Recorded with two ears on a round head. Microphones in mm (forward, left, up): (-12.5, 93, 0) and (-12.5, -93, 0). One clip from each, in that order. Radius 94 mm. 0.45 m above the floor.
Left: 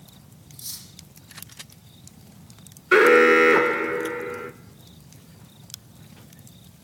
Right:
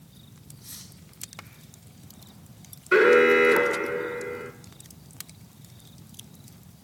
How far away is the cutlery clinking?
About 9.5 m.